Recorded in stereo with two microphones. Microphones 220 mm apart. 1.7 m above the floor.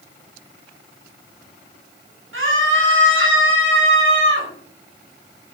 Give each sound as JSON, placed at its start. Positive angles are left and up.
{"t": 2.3, "sound": "a scream", "side_deg": -70, "distance_m": 5.5}